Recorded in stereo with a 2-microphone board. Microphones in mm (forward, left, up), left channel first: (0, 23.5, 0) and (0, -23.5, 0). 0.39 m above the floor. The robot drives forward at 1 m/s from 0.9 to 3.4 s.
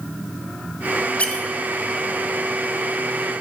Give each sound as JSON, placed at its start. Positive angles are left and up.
{"t": 1.2, "sound": "a squeak", "side_deg": 30, "distance_m": 1.2}